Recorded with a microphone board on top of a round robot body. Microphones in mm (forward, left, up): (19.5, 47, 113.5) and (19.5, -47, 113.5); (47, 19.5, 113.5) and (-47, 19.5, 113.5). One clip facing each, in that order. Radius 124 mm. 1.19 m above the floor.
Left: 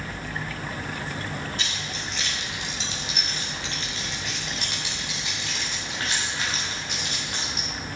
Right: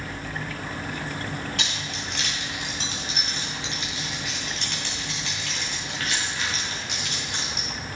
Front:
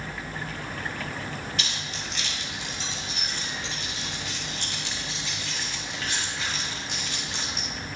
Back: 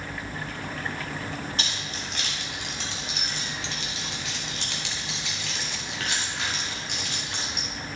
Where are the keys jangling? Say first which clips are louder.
Right 1 dB, back 1 dB; 125° right, 1.7 m; by 7.7 s 140° left, 2.5 m.